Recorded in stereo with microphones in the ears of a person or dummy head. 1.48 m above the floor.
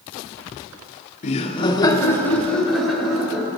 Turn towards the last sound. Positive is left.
turn(degrees=-5)  # may be behind; listen again after turning